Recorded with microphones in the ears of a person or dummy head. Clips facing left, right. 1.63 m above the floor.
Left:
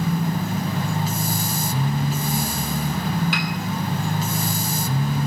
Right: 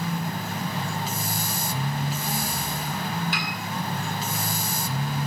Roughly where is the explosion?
No explosion in this recording.